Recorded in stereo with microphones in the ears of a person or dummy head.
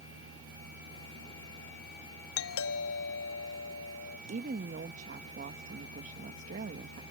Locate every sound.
0.0 s a fan: 85° right
2.4 s a doorbell: 75° left (ahead or behind)
4.3 s a woman speaking: 40° right (ahead or behind)